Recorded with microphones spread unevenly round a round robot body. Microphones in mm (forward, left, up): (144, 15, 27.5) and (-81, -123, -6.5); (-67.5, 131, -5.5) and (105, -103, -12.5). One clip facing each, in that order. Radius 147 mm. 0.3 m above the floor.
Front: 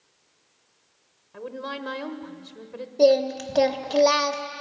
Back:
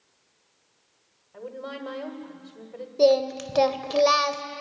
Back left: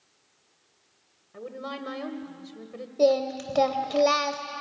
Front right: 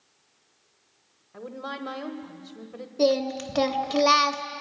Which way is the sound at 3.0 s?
110° right.